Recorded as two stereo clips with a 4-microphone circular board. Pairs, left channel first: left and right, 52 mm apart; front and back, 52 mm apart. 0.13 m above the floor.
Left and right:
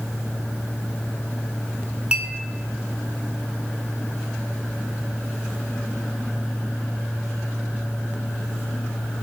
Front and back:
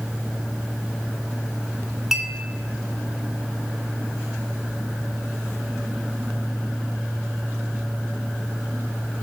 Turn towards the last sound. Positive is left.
turn(degrees=-110)